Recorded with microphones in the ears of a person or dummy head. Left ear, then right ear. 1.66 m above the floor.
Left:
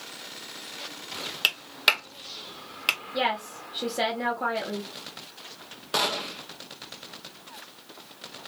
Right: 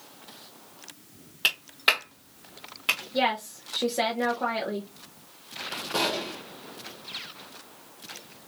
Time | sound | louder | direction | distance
1.4 | a clap | even | 30° left (ahead or behind) | 1.6 m
3.1 | a woman speaking | right 1 dB | 5° right (ahead or behind) | 0.8 m
5.9 | a gunshot | left 2 dB | 45° left (ahead or behind) | 1.4 m